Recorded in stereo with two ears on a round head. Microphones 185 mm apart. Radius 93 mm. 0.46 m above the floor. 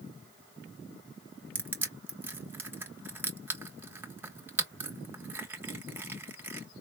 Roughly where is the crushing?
Centre.